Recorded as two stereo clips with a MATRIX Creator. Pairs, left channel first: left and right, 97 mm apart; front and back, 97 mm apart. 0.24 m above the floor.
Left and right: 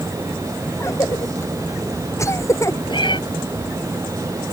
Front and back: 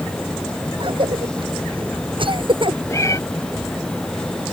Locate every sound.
0.8 s a cough: 150° left
2.9 s a cat meowing: 60° left